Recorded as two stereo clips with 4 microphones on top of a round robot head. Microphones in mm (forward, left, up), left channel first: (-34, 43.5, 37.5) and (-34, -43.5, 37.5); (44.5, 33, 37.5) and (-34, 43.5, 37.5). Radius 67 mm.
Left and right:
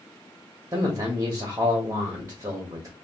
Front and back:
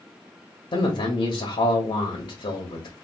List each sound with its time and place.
0.7 s a man speaking: 35° right, 0.8 m